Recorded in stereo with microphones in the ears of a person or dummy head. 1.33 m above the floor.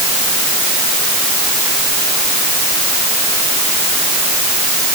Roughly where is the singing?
No singing in this recording.